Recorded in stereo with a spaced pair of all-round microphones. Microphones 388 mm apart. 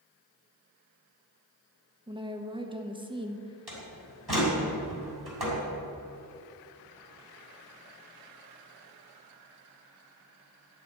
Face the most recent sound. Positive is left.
turn(degrees=-75)  # may be behind; listen again after turning